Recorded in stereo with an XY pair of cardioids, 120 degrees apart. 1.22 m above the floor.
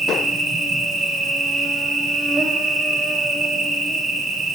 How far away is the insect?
About 0.9 m.